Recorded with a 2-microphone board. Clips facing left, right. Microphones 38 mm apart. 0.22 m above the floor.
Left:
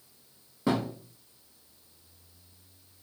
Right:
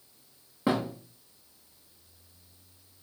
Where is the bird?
I don't hear a bird.